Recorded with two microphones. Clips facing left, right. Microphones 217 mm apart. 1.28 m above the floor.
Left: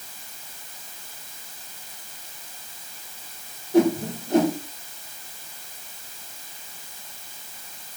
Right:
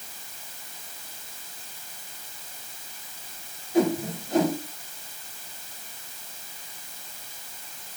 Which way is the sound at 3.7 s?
65° left (ahead or behind).